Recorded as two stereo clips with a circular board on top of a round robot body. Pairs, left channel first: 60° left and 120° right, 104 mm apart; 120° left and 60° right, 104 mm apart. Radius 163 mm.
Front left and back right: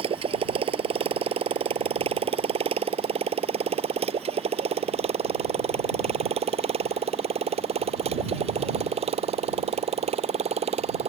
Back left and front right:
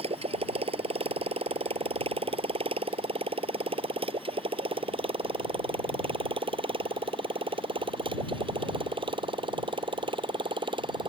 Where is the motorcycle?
90° right; by 11.1 s 100° right.